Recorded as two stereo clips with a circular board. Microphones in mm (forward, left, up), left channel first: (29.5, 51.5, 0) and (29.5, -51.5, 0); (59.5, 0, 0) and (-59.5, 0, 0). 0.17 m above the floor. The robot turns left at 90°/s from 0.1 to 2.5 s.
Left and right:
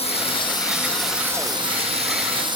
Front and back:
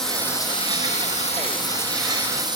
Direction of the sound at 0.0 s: 85° left.